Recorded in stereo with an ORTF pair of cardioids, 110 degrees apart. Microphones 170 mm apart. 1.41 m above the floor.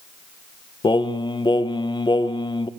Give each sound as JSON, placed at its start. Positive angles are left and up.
{"t": 0.8, "sound": "singing", "azimuth_deg": 25, "distance_m": 1.0}